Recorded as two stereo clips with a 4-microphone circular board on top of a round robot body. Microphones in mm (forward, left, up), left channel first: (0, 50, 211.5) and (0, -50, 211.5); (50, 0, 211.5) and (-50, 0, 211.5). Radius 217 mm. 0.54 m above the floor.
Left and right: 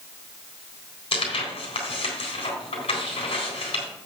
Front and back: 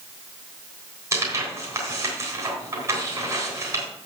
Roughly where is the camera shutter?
No camera shutter in this recording.